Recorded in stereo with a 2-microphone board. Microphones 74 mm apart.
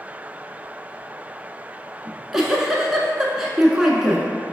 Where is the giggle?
5° right (ahead or behind), 0.6 m.